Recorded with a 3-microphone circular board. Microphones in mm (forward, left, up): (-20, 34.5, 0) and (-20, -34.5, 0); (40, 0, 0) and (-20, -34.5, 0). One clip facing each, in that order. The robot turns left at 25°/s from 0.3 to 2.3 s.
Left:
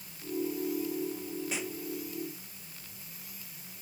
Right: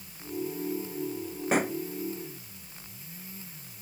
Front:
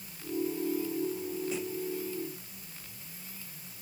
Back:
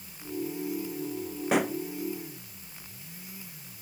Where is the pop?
130° right; by 1.8 s 135° right.